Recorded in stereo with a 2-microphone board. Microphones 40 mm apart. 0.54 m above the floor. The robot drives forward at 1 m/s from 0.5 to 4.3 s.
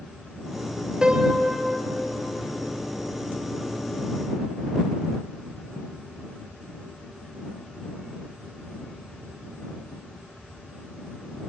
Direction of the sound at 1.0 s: 20° right (ahead or behind).